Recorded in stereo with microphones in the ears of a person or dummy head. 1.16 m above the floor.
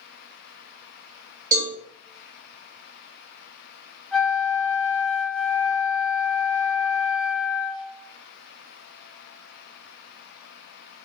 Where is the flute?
5° right (ahead or behind), 1.4 m.